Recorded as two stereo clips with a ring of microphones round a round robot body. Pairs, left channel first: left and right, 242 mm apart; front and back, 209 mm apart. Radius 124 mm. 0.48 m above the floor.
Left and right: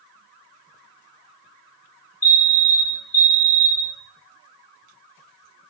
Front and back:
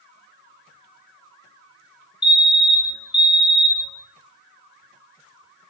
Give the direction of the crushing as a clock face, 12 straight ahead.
No crushing in this recording.